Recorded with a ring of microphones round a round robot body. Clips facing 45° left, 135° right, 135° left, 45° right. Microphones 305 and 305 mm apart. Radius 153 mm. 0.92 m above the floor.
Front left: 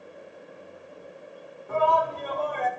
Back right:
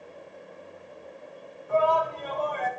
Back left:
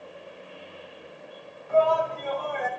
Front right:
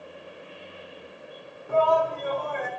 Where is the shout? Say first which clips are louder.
Back right 1 dB, even; straight ahead, 3.5 m.